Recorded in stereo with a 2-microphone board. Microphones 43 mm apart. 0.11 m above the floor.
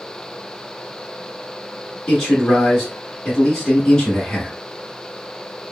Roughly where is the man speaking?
Centre.